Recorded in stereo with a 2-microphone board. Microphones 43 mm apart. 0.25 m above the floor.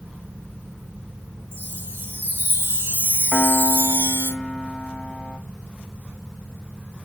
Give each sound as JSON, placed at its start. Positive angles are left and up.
{"t": 1.5, "sound": "a chime", "side_deg": -55, "distance_m": 4.0}
{"t": 3.3, "sound": "a piano", "side_deg": 20, "distance_m": 1.4}